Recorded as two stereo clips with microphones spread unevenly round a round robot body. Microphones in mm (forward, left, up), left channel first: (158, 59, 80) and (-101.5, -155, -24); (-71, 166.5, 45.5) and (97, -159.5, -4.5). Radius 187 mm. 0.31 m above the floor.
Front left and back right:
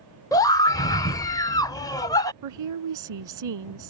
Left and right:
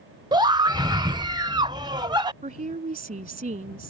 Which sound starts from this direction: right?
A scream, at 0.3 s.